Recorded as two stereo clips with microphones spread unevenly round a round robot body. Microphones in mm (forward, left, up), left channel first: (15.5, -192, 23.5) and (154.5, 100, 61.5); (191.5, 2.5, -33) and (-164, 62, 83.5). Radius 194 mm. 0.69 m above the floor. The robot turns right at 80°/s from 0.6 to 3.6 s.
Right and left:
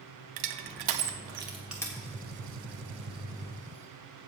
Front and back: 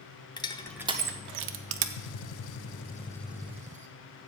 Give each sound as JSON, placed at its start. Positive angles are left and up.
{"t": 0.4, "sound": "crushing", "azimuth_deg": 65, "distance_m": 0.9}
{"t": 2.0, "sound": "a gunshot", "azimuth_deg": -5, "distance_m": 0.5}